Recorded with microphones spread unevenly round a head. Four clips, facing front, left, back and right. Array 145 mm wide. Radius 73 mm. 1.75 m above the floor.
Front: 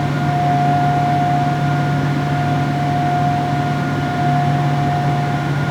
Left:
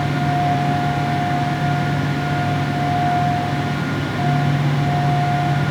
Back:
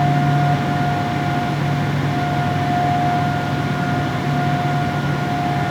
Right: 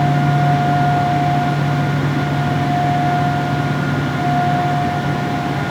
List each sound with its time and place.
Only background noise.